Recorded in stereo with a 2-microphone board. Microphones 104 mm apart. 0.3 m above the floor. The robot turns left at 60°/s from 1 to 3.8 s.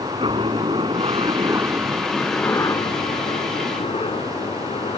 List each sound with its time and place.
0.0 s a helicopter: 55° right (ahead or behind); by 5.0 s 65° left (ahead or behind)